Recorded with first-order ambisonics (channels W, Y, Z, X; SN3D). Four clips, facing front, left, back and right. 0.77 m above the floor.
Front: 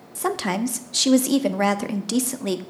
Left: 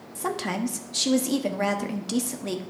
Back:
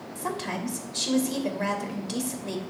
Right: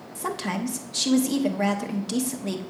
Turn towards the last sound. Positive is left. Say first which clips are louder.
# left 1 dB, front 8 dB
turn(degrees=5)